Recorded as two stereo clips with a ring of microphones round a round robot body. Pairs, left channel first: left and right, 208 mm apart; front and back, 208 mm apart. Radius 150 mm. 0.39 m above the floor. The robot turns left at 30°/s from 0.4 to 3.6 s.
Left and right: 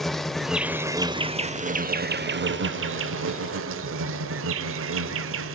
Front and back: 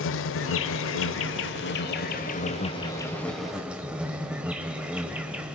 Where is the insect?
Straight ahead, 0.7 m; by 5.6 s 95° right, 0.7 m.